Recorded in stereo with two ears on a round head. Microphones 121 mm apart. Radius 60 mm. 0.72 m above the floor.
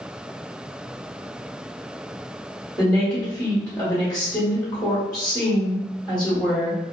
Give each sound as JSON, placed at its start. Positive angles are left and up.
{"t": 2.8, "sound": "a woman speaking", "side_deg": 5, "distance_m": 1.5}